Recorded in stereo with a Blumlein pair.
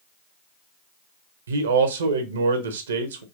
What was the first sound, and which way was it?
A man speaking, 65° right.